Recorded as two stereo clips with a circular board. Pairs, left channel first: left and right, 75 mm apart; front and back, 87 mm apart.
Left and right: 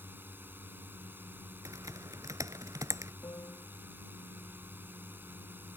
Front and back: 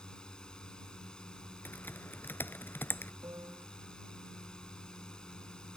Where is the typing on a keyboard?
60° right.